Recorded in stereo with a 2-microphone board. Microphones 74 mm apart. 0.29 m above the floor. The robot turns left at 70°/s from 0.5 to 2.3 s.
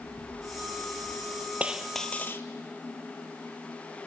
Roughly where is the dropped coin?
Behind.